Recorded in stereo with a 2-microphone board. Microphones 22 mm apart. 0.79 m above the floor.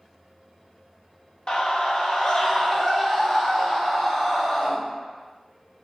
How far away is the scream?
About 0.6 m.